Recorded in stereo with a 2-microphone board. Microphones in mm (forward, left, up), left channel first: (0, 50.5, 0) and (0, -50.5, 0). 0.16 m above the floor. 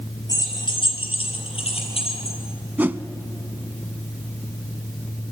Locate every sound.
0.3 s keys jangling: 35° left (ahead or behind), 2.5 m; by 2.4 s 75° left (ahead or behind), 4 m
2.8 s a whoosh: 20° right (ahead or behind), 0.5 m